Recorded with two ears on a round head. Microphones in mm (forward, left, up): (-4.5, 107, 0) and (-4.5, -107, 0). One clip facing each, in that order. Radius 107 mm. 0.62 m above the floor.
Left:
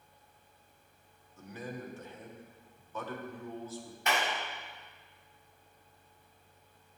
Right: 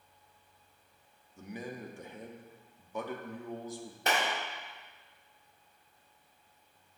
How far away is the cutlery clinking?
No cutlery clinking in this recording.